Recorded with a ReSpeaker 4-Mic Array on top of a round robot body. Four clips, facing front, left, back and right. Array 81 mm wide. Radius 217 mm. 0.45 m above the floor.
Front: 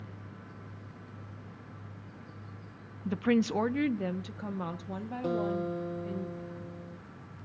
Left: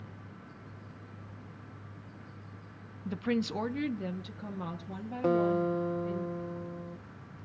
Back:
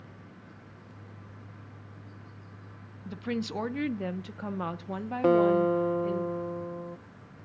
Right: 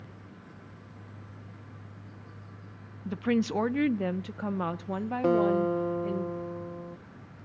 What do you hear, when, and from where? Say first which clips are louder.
3.0 s a woman speaking: right 4 dB, front 6 dB; 10° right, 0.7 m; by 6.2 s 125° right, 1.6 m
5.2 s a guitar: right 3 dB, back 10 dB; 170° right, 1.0 m